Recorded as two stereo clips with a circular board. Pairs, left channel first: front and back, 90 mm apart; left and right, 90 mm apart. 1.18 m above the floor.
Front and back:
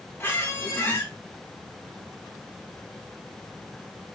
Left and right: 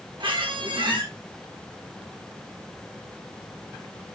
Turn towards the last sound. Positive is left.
turn(degrees=-65)